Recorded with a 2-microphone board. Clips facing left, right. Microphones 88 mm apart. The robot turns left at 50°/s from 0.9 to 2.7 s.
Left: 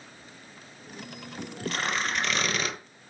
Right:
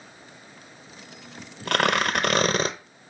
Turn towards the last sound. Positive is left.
turn(degrees=-140)